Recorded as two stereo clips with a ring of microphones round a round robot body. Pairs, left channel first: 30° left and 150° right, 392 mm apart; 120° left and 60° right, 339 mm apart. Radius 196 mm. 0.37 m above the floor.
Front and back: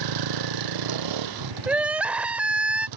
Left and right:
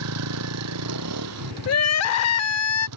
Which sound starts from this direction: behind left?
Crying, at 1.7 s.